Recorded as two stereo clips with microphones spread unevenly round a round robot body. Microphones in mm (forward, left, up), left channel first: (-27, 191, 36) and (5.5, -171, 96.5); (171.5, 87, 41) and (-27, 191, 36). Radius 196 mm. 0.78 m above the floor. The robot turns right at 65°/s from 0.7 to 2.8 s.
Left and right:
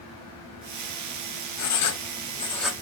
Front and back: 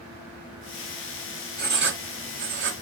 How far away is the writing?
About 1.8 m.